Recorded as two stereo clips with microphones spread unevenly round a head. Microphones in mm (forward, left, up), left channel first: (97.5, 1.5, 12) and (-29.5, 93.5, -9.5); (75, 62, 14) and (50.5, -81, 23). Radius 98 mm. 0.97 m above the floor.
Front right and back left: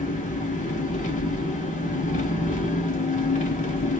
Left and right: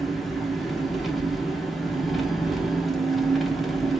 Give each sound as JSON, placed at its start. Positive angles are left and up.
{"t": 0.0, "sound": "an engine running", "azimuth_deg": -10, "distance_m": 0.7}